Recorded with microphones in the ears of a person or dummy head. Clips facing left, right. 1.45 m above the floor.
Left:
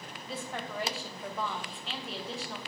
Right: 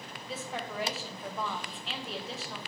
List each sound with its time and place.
0.3 s a woman speaking: 5° right (ahead or behind), 0.6 m